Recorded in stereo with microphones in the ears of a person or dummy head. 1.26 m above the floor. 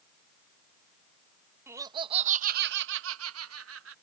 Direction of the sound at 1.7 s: 15° right (ahead or behind).